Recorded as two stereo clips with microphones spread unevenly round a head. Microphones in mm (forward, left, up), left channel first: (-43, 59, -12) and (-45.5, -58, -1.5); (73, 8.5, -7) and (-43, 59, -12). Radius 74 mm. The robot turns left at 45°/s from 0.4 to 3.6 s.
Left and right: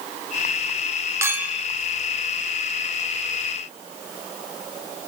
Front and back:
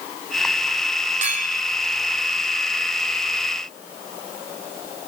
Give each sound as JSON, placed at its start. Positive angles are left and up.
{"t": 1.2, "sound": "a clink", "azimuth_deg": -160, "distance_m": 2.0}